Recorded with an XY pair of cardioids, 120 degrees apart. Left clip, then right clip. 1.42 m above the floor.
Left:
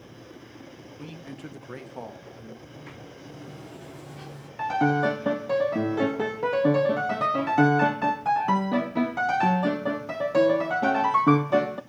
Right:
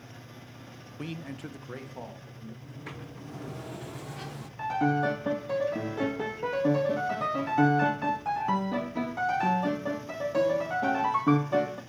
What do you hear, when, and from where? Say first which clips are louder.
1.0 s a man speaking: right 3 dB; 40° right, 0.7 m; by 2.5 s 30° left, 1.6 m
2.6 s a sliding door: even; 30° right, 0.8 m
4.6 s a piano: left 4 dB; 30° left, 0.6 m